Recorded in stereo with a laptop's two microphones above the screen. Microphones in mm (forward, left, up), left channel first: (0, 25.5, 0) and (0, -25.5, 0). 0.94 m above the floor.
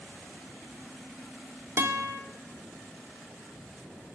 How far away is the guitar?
About 1.9 m.